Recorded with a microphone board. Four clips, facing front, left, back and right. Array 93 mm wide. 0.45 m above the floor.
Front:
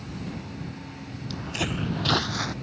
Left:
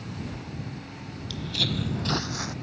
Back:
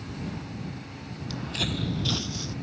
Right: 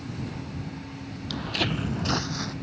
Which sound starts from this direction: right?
Footsteps, at 1.3 s.